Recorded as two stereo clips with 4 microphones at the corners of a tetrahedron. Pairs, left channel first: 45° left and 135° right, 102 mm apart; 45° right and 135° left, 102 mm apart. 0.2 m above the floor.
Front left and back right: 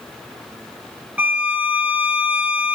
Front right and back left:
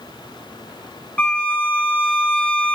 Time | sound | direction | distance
1.2 | a violin | 90° right | 0.7 m